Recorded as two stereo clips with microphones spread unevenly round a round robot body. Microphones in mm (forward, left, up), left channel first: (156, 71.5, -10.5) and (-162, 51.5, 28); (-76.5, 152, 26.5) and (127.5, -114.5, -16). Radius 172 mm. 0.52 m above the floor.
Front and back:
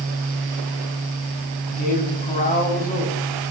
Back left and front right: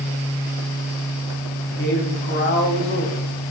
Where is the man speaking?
65° left, 3 m.